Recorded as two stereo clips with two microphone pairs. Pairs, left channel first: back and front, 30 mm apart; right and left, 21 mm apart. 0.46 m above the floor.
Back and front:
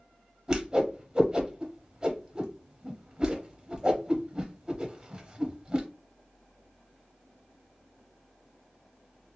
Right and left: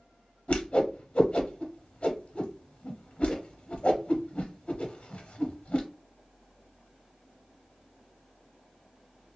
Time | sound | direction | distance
0.5 | a whoosh | 70° right | 0.8 m